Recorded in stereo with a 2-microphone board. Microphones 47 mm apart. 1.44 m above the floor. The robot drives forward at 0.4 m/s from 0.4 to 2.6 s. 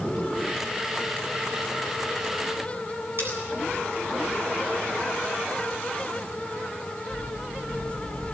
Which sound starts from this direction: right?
Cutlery clinking, at 3.2 s.